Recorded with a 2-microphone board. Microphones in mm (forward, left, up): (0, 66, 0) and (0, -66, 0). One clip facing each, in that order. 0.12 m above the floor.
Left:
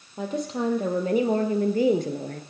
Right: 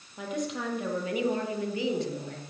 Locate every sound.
0.2 s a woman speaking: 30° left (ahead or behind), 4 m; by 2.4 s 50° left (ahead or behind), 2 m